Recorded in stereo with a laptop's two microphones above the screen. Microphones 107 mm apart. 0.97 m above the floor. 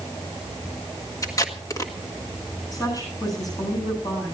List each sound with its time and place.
1.2 s tape being pulled: 30° left (ahead or behind), 1.5 m
2.7 s a woman speaking: 35° left (ahead or behind), 10 m